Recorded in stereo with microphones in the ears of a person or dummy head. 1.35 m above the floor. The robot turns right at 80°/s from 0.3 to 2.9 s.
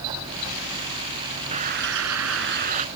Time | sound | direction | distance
1.5 | a bird | 145° right | ?